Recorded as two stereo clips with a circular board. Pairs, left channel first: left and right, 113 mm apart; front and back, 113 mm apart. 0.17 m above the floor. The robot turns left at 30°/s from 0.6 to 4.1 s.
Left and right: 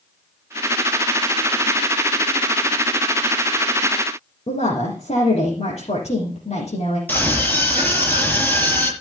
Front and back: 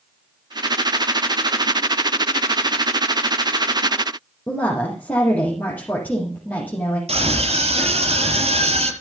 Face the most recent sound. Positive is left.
turn(degrees=165)